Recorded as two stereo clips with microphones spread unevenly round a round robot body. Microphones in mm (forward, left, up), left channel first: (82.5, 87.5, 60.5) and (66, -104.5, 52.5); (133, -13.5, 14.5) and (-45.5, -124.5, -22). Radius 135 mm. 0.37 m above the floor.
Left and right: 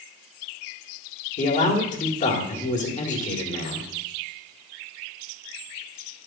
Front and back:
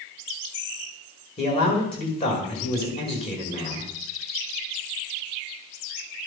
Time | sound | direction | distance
1.4 | a man speaking | 100° left | 1.8 m